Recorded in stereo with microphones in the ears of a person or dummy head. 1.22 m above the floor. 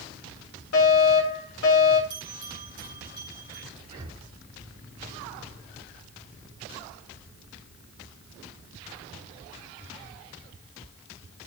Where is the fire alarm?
80° left, 6 m.